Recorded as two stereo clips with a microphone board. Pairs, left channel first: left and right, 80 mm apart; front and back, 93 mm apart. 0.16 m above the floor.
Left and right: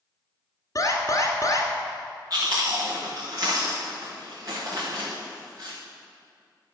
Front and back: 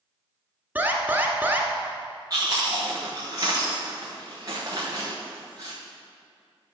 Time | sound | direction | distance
0.8 | an alarm | 115° left | 1.5 m
2.3 | chewing | 130° right | 4 m